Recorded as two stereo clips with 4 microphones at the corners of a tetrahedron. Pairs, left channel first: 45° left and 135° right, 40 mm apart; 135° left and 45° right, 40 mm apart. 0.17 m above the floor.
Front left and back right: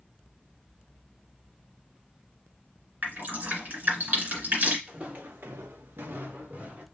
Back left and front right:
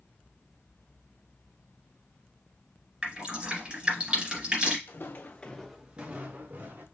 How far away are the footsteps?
About 1.3 m.